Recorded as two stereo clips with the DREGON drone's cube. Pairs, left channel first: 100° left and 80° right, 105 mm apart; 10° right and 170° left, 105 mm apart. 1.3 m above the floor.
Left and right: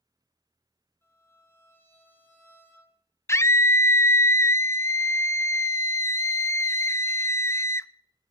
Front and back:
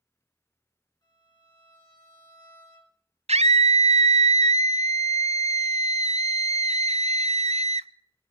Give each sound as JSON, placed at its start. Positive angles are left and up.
{"t": 1.0, "sound": "a violin", "azimuth_deg": 35, "distance_m": 5.5}
{"t": 3.3, "sound": "a scream", "azimuth_deg": 165, "distance_m": 0.5}